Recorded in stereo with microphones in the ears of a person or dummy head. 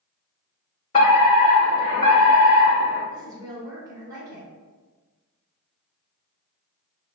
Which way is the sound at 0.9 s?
35° left (ahead or behind).